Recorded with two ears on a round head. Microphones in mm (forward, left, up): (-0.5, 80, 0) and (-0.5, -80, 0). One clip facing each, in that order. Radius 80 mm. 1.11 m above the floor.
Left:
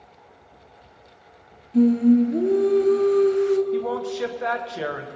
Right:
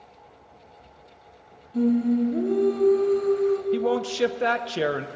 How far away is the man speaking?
About 0.5 m.